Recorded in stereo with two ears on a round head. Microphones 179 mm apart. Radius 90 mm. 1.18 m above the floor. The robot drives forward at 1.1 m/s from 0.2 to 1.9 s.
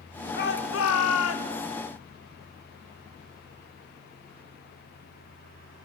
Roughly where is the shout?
Left.